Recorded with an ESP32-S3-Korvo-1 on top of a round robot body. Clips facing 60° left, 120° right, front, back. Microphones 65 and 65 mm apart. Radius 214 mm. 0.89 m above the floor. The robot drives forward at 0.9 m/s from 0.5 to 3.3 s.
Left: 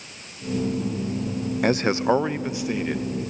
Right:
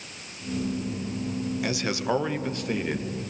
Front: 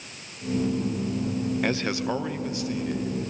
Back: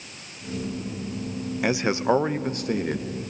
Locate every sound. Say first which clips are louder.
1.6 s a man speaking: left 10 dB, back 4 dB; 100° left, 1.0 m; by 3.1 s 150° left, 1.7 m